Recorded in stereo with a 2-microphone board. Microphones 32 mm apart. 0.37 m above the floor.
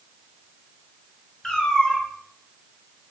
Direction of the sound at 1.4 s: 20° left (ahead or behind).